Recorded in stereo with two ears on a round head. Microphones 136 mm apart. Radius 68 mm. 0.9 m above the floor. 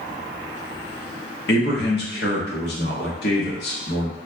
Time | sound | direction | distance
1.5 | a man speaking | 75° left (ahead or behind) | 1.2 m